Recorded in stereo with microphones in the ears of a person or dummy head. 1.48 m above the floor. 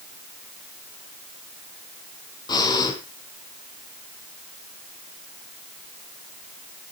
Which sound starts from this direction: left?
Breathing, at 2.5 s.